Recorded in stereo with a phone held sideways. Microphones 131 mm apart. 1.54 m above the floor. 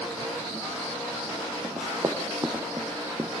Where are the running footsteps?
25° right (ahead or behind), 2.5 m; by 3.3 s 20° right (ahead or behind), 1.7 m.